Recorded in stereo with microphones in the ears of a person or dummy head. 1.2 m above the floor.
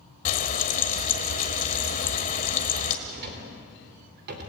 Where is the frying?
40° left (ahead or behind), 1.6 m.